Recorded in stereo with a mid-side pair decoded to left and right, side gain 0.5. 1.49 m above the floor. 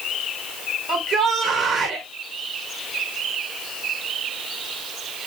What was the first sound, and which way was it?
A shout, 50° right.